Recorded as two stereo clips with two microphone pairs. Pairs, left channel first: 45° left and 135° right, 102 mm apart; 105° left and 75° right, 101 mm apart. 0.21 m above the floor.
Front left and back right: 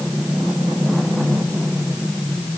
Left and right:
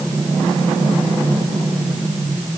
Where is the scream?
No scream in this recording.